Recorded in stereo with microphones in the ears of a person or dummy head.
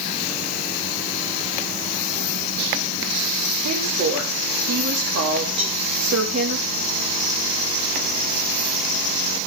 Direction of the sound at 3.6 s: 65° right (ahead or behind).